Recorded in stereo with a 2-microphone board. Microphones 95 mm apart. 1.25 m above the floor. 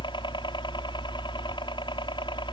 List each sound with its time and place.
0.0 s a helicopter: 55° left (ahead or behind)